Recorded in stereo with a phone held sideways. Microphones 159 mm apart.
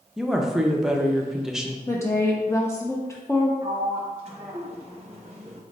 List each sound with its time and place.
0.2 s a woman speaking: 5° right (ahead or behind), 0.5 m
1.9 s a woman speaking: 20° left (ahead or behind), 0.5 m
3.6 s a sliding door: 40° right (ahead or behind), 0.7 m